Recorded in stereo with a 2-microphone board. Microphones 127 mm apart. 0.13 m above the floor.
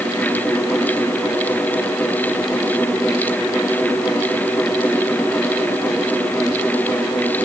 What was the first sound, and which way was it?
Only background noise.